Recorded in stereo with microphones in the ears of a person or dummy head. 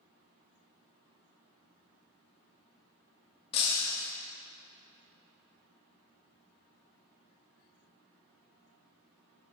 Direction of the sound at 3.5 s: 30° left (ahead or behind).